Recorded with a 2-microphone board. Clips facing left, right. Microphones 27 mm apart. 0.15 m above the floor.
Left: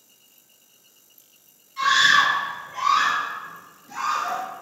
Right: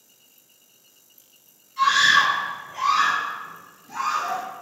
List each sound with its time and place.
1.8 s a scream: 5° left (ahead or behind), 1.7 m